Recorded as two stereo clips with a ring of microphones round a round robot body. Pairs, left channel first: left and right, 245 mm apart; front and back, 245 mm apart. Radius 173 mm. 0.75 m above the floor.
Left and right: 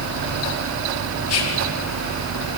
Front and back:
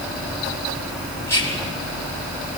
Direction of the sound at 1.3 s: 80° left.